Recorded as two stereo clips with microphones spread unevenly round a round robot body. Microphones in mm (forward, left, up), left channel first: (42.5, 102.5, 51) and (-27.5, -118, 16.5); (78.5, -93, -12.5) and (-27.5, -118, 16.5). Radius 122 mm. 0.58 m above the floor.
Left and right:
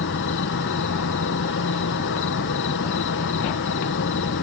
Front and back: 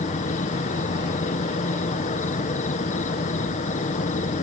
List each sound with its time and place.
0.0 s an insect: 40° left, 0.9 m